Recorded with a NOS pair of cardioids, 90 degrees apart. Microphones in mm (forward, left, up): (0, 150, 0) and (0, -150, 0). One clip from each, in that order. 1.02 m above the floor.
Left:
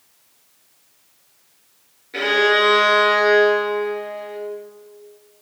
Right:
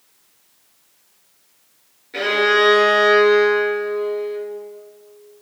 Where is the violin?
5° left, 4.5 m.